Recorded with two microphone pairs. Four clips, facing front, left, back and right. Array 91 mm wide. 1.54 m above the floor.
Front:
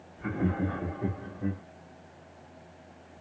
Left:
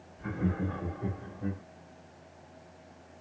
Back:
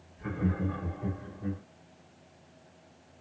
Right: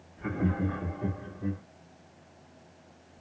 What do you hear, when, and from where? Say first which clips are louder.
0.2 s laughter: right 3 dB, front 2 dB; 45° right, 1.3 m; by 1.6 s 10° left, 1.3 m